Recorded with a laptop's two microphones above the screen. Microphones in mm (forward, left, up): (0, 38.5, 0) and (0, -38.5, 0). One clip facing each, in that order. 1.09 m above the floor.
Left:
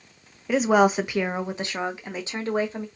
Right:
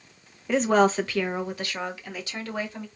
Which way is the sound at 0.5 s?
5° left (ahead or behind).